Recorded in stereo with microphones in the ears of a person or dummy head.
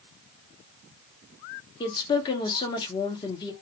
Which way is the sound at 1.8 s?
25° left (ahead or behind).